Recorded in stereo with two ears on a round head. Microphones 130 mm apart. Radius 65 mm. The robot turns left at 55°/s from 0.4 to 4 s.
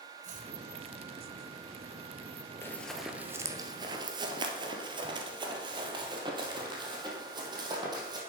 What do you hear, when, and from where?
0.2 s chopping: 55° right (ahead or behind), 2 m; by 0.5 s 60° right (ahead or behind), 2 m
2.6 s running footsteps: 15° left (ahead or behind), 1.4 m; by 8.2 s 30° right (ahead or behind), 3 m